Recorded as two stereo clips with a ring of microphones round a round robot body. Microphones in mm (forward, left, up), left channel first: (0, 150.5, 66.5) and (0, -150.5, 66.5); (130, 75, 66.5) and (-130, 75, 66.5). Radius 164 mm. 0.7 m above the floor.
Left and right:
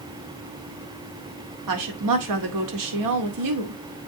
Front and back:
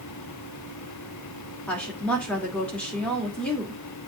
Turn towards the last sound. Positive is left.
turn(degrees=-85)